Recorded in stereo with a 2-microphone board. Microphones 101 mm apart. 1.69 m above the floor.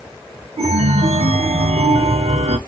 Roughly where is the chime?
Right.